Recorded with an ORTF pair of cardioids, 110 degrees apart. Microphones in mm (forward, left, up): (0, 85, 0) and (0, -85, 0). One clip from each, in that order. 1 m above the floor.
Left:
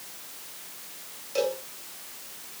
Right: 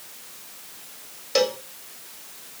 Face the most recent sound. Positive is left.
turn(degrees=-65)